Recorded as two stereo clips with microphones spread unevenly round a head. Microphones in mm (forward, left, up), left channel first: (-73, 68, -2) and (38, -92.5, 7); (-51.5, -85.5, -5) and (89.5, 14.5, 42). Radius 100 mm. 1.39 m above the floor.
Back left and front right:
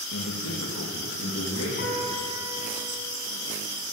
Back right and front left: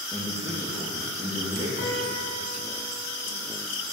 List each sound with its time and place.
0.1 s a man speaking: 115° left, 1.4 m; by 1.7 s 90° left, 2.5 m
1.8 s a piano: 170° left, 2.5 m